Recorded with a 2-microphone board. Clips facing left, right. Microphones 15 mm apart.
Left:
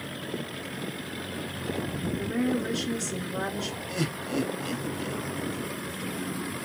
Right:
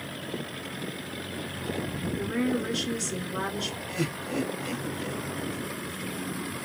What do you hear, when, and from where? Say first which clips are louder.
2.2 s a woman speaking: even; 15° right (ahead or behind), 1.5 m
3.9 s laughter: left 2 dB; 25° left (ahead or behind), 1.3 m